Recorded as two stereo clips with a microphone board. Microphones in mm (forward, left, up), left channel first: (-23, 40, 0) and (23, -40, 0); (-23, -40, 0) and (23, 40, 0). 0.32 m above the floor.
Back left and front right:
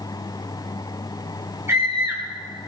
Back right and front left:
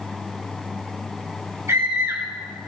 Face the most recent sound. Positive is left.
turn(degrees=0)